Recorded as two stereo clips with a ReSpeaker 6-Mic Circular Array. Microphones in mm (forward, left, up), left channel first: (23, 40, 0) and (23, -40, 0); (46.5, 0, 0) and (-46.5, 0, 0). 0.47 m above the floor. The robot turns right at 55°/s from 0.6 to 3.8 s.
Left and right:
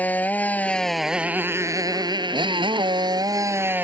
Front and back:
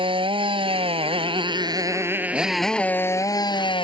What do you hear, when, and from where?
0.0 s a motorcycle: 160° left; by 3.8 s 25° right